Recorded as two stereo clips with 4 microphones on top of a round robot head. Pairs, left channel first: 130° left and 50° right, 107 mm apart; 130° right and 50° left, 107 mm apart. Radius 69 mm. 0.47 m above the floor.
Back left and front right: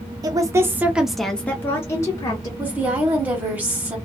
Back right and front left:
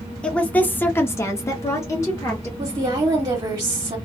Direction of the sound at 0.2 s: 55° right.